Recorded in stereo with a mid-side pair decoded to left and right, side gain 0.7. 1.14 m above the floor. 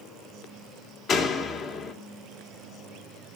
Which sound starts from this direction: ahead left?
A door slam, at 1.1 s.